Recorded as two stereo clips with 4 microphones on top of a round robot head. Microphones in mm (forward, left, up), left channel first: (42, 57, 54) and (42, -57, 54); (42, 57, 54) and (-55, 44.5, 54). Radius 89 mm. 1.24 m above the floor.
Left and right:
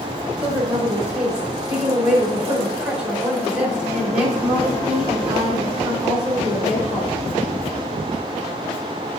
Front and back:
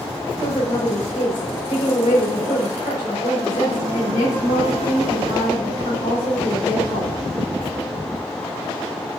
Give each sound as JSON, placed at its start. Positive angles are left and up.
{"t": 0.4, "sound": "a woman speaking", "azimuth_deg": -10, "distance_m": 3.0}